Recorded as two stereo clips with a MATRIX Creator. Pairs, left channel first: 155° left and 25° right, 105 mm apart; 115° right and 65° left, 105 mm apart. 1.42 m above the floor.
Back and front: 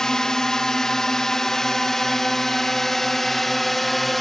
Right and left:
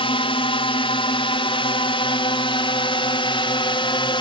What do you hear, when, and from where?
0.0 s a drone: 120° right; by 4.2 s 115° right